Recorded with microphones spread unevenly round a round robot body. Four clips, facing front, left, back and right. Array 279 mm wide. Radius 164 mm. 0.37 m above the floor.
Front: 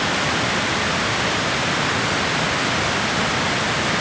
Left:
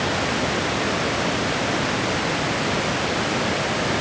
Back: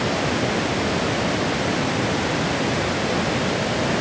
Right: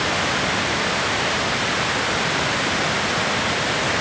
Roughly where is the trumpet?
No trumpet in this recording.